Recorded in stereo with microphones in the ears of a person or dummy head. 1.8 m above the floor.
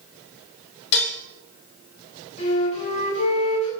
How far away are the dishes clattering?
About 1.5 m.